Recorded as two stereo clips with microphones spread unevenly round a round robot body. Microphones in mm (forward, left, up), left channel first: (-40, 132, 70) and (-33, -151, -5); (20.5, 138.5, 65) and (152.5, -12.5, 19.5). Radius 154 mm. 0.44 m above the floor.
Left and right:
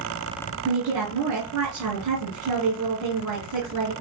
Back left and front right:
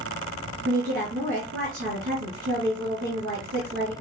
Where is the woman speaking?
95° right, 3 m.